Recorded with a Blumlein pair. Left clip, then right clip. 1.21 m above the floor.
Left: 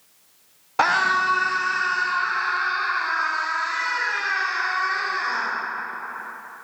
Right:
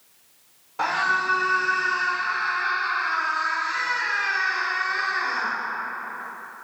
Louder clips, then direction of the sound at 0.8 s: Left 4 dB; 30° left.